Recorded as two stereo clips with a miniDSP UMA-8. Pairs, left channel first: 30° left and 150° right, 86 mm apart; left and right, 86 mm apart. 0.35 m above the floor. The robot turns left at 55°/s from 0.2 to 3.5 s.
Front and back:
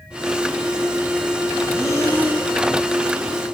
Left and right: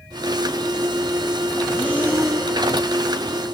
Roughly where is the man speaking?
I don't hear a man speaking.